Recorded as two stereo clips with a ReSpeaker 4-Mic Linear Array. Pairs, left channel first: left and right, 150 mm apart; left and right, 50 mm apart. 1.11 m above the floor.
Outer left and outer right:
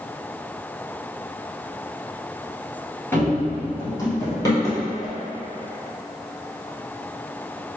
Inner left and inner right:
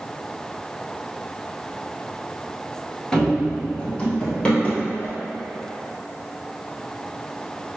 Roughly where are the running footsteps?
Centre.